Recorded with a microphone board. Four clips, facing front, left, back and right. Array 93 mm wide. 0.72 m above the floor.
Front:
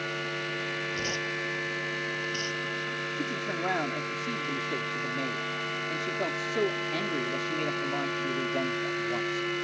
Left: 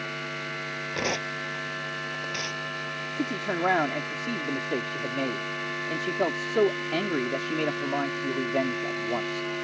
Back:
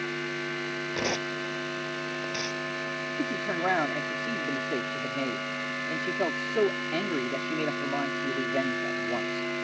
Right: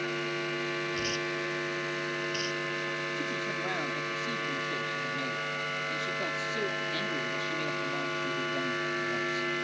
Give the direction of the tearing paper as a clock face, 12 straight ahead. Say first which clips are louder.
Left 2 dB, back 3 dB; 8 o'clock.